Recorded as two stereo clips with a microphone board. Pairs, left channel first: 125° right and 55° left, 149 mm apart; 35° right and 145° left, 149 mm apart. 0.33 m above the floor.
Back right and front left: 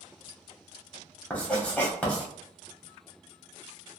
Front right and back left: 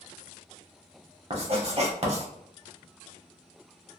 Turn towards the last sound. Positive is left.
turn(degrees=160)